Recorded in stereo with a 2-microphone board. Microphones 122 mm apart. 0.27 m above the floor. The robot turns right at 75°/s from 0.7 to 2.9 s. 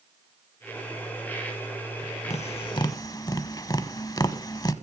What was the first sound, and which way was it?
Tapping, 60° left (ahead or behind).